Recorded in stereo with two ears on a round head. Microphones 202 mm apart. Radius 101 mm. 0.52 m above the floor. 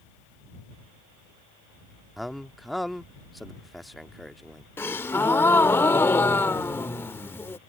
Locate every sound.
2.2 s a man speaking: centre (ahead or behind)
4.8 s a gasp: 10° left (ahead or behind)